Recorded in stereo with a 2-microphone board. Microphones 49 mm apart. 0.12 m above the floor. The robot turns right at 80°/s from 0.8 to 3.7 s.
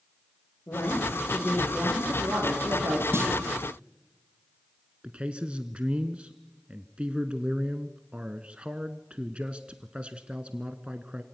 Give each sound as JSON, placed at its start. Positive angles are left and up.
{"t": 0.7, "sound": "a woman speaking", "azimuth_deg": 125, "distance_m": 10.0}
{"t": 3.1, "sound": "a clunk", "side_deg": -60, "distance_m": 4.5}
{"t": 5.0, "sound": "a man speaking", "side_deg": -25, "distance_m": 1.1}